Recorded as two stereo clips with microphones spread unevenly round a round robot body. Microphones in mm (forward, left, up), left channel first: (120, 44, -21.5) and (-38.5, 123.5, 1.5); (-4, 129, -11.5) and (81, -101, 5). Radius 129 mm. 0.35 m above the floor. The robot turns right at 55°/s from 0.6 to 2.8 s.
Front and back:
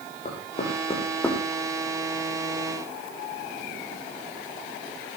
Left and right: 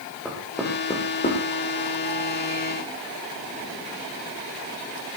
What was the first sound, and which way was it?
Knocking, 20° left.